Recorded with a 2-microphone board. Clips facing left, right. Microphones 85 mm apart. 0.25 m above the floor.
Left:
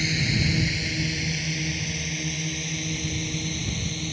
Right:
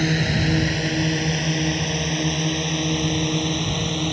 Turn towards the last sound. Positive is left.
turn(degrees=-60)  # may be behind; listen again after turning